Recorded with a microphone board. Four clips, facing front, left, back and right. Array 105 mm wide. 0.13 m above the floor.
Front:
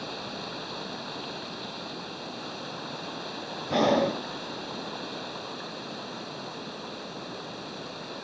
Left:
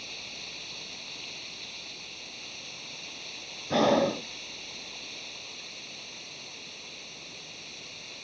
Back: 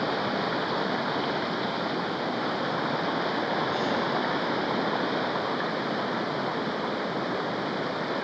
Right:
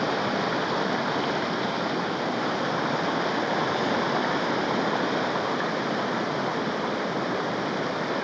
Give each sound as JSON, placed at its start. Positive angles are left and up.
{"t": 0.0, "sound": "running water", "azimuth_deg": -120}
{"t": 3.7, "sound": "breathing", "azimuth_deg": 45}